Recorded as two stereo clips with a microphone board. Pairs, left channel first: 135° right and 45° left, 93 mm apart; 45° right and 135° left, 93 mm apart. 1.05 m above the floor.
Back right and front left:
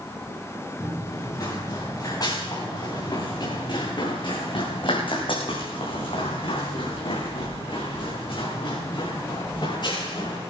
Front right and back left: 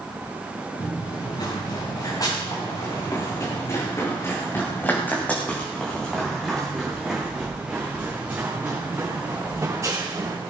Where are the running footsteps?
80° right, 5 m; by 10.4 s 170° right, 4.5 m.